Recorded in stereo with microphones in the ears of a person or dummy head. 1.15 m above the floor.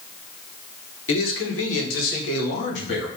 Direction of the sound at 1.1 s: 65° left (ahead or behind).